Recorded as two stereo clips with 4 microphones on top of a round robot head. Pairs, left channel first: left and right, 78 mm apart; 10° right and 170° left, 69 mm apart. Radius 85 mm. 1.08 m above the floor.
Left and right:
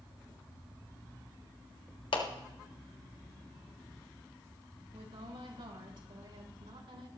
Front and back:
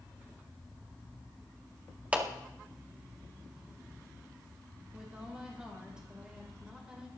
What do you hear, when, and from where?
2.1 s a clap: 100° left, 1.9 m
4.9 s a woman speaking: 110° right, 3.5 m